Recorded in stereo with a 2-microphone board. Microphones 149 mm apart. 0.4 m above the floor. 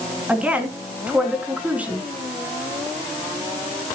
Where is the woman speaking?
10° right (ahead or behind), 3 m.